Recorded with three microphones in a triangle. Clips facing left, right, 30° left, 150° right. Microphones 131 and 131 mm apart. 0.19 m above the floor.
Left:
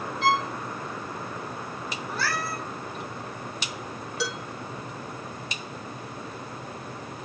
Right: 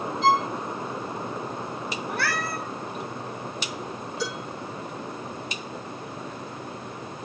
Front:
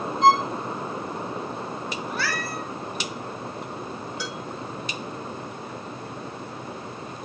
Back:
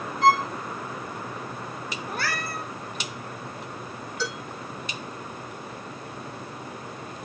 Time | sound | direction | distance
0.2 | a violin | 100° left | 1.5 m
2.1 | a cat meowing | 115° right | 1.8 m
4.2 | dishes clattering | 105° left | 5.5 m